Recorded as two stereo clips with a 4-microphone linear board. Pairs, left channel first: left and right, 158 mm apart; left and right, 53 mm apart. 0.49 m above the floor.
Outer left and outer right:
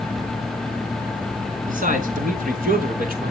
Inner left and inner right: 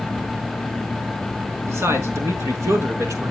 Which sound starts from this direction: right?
A man speaking, at 1.7 s.